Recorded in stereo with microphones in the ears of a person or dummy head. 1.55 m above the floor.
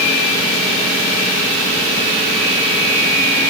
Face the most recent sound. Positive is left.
No sound to turn to.